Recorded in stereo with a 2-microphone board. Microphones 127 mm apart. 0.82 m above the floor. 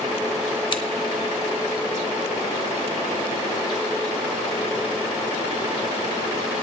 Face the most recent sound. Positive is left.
turn(degrees=40)  # may be behind; listen again after turning